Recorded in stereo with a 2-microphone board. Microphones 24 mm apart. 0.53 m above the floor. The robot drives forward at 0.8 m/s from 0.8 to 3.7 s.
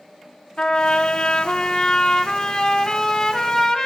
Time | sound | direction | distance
0.6 | a trumpet | 50° left (ahead or behind) | 0.9 m